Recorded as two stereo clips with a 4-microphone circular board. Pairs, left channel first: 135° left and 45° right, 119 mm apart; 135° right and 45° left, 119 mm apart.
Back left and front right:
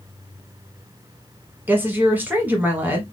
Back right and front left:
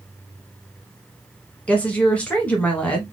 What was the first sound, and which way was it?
A woman speaking, 80° right.